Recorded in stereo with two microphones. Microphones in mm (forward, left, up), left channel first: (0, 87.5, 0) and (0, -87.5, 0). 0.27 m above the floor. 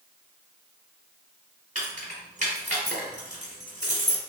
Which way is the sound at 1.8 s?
45° right (ahead or behind).